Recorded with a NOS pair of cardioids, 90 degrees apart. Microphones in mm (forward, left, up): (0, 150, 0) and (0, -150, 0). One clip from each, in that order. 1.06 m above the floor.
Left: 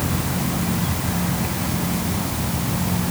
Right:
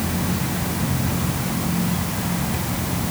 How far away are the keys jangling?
No keys jangling in this recording.